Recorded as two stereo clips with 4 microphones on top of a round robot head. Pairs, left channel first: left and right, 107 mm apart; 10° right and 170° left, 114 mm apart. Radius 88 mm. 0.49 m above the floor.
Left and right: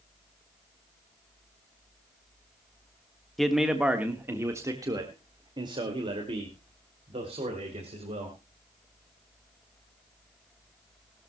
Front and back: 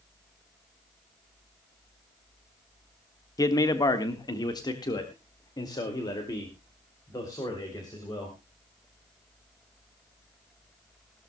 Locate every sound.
3.4 s a man speaking: straight ahead, 1.4 m; by 8.4 s 70° right, 3.5 m